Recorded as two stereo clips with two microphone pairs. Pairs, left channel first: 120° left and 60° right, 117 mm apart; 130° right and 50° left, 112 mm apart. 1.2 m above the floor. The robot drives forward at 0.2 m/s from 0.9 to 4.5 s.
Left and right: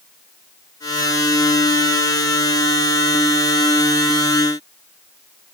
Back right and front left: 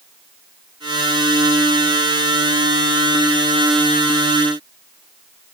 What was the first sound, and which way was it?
Only background noise.